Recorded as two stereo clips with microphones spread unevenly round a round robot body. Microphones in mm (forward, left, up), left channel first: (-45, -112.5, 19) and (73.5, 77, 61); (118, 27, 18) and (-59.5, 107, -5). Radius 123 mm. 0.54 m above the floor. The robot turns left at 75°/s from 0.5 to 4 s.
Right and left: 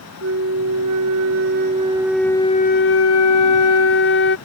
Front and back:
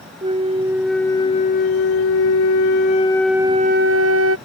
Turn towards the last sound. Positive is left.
turn(degrees=-170)